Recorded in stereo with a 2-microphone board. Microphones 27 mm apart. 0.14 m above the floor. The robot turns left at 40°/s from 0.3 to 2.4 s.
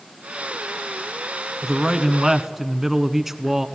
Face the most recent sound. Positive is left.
turn(degrees=-10)  # may be behind; listen again after turning